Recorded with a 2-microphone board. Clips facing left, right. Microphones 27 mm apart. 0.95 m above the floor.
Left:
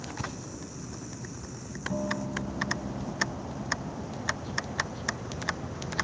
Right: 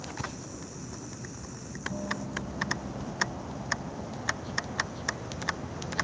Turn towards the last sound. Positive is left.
turn(degrees=30)  # may be behind; listen again after turning